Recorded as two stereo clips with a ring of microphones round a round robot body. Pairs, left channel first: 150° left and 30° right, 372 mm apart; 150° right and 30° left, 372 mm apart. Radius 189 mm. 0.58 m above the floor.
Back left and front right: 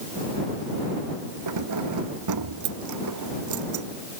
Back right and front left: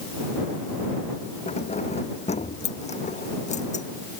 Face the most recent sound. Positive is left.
turn(degrees=-75)